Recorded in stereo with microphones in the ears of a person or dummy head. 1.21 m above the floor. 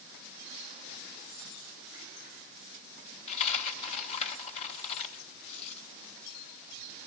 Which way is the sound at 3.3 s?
30° left (ahead or behind).